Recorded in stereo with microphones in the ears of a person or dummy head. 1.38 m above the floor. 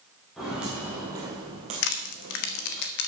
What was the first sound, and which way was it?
Footsteps, centre (ahead or behind).